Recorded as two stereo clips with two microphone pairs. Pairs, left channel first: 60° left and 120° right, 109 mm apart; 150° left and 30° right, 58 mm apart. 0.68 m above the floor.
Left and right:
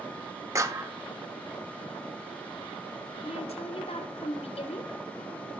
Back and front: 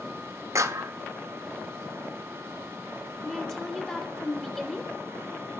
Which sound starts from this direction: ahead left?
A woman speaking, at 3.2 s.